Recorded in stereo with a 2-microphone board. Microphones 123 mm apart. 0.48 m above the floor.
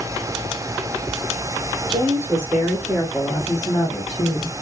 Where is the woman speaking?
35° right (ahead or behind), 1.3 m; by 4.5 s 45° left (ahead or behind), 1.5 m.